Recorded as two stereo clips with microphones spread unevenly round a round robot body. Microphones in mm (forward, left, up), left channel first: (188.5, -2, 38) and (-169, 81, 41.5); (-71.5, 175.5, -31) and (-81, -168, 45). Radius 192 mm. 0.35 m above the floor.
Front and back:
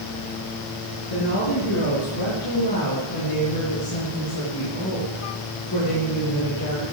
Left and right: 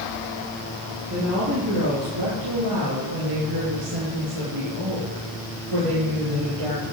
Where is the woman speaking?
35° right, 5.5 m; by 6.9 s 70° right, 8.5 m.